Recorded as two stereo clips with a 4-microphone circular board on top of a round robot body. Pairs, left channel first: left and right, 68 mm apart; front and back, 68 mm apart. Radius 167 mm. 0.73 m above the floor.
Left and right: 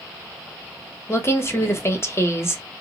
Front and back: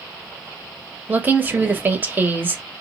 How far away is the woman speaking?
About 1.1 m.